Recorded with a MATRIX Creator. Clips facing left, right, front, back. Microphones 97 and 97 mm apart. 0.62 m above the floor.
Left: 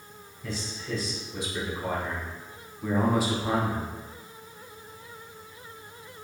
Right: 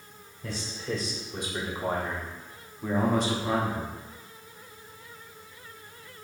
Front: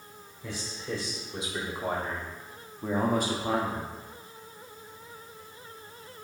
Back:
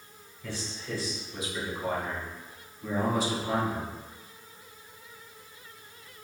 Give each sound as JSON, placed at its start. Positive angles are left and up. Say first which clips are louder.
{"t": 0.4, "sound": "a man speaking", "louder": "right 1 dB, front 1 dB", "azimuth_deg": -70, "distance_m": 1.5}